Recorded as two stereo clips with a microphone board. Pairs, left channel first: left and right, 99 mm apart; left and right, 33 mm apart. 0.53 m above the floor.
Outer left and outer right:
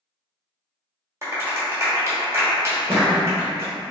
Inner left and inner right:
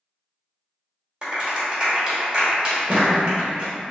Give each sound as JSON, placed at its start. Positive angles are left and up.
{"t": 1.2, "sound": "a clap", "side_deg": -30, "distance_m": 1.1}
{"t": 2.7, "sound": "a thud", "side_deg": -55, "distance_m": 1.2}